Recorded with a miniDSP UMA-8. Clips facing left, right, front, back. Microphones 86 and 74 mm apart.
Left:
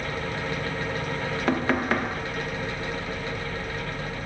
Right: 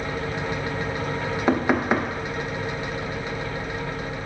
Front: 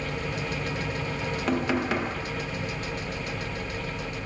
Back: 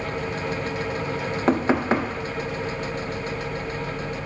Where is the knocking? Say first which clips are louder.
Right 3 dB, back 6 dB; 150° right, 0.5 m.